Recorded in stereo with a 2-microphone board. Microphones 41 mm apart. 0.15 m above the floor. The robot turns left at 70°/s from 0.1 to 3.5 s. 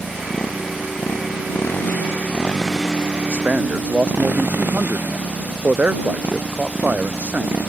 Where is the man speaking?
65° right (ahead or behind); by 7.6 s 50° right (ahead or behind).